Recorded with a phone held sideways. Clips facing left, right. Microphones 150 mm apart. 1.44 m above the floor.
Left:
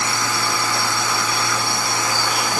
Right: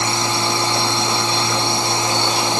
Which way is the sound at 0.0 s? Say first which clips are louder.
Right 3 dB; 25° right (ahead or behind).